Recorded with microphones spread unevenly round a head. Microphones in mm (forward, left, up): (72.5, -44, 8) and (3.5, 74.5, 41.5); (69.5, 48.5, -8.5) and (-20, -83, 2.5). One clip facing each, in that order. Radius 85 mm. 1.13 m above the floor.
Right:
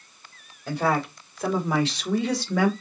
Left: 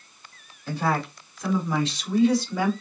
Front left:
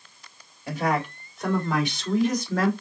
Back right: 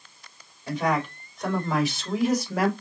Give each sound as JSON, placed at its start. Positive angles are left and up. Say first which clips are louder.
{"t": 0.7, "sound": "a woman speaking", "louder": "right 2 dB, even", "azimuth_deg": -30, "distance_m": 3.0}